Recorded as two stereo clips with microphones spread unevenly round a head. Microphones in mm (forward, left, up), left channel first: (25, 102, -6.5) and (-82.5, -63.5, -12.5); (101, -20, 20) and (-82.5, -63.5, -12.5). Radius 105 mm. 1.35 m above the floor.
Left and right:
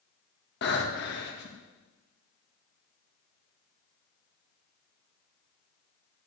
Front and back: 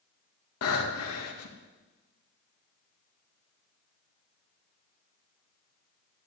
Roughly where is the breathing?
Ahead.